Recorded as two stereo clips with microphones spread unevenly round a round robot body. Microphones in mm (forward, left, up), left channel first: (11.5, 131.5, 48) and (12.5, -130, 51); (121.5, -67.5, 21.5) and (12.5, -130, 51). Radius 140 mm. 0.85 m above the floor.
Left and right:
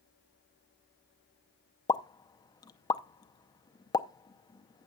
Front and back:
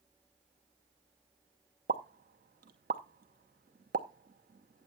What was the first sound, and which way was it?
A pop, 165° left.